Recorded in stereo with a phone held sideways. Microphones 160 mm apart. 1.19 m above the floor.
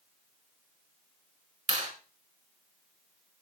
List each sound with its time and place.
1.7 s a clap: 45° right (ahead or behind), 4.5 m